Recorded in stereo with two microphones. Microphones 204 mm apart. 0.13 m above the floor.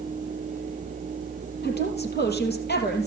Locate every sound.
1.6 s a woman speaking: 55° left (ahead or behind), 3 m